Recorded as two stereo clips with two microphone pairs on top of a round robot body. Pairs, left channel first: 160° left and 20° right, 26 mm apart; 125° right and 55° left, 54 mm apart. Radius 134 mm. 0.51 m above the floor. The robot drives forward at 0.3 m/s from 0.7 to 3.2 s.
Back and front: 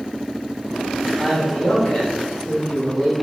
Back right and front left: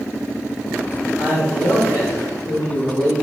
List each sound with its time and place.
1.2 s a man speaking: 135° right, 1.2 m; by 3.1 s 150° right, 1.6 m